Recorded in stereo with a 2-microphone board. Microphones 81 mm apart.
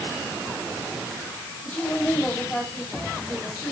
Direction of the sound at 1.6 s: 15° left (ahead or behind).